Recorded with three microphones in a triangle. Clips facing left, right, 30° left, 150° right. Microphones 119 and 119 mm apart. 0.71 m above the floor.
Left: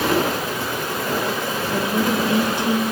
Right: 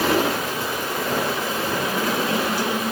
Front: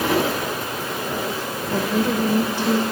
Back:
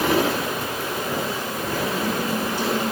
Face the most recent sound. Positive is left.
turn(degrees=25)